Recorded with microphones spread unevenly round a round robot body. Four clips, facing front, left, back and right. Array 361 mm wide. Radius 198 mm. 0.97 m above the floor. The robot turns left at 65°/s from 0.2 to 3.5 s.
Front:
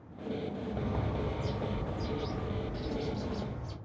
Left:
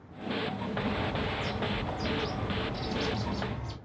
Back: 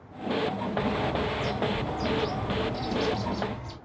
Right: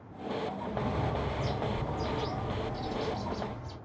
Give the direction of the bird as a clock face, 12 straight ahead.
2 o'clock.